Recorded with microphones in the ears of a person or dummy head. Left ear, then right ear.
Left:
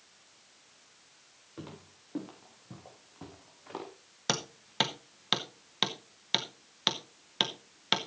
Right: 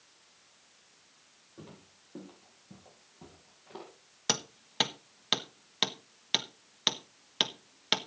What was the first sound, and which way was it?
Footsteps, 70° left (ahead or behind).